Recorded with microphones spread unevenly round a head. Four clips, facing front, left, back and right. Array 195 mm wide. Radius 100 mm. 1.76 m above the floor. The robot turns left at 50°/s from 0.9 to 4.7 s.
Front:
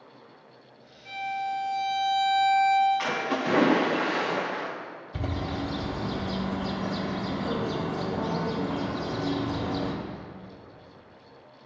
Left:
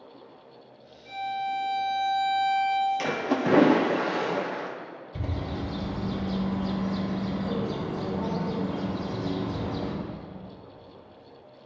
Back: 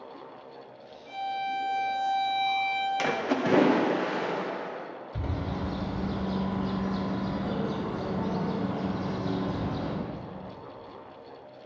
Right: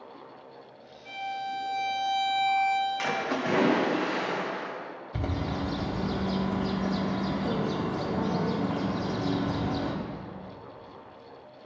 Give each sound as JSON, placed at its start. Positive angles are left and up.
{"t": 1.1, "sound": "a violin", "azimuth_deg": -30, "distance_m": 2.5}
{"t": 3.0, "sound": "a splash", "azimuth_deg": 145, "distance_m": 0.8}
{"t": 5.1, "sound": "a bird", "azimuth_deg": -65, "distance_m": 1.3}